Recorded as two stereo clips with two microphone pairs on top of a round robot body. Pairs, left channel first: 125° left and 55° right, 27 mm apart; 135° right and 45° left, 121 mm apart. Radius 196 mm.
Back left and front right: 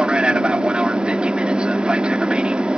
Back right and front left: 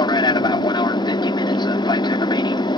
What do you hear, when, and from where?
0.0 s an aircraft: 95° right